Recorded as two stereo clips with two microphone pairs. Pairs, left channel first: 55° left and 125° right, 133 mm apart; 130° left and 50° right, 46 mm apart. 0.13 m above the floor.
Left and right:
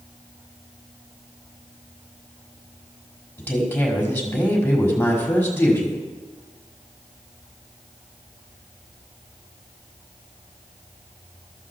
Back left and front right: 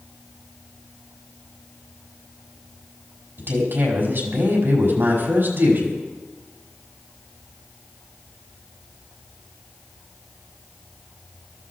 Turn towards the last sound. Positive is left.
turn(degrees=-15)